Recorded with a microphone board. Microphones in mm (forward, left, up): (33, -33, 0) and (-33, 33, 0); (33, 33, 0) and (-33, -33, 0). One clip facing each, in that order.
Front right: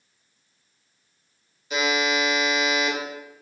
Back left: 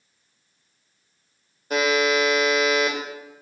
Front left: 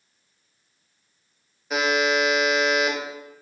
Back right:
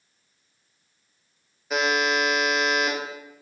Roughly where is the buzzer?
Behind left.